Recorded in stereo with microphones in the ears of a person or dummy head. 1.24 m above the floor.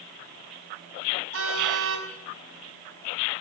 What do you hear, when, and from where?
1.3 s a car horn: 80° right, 5 m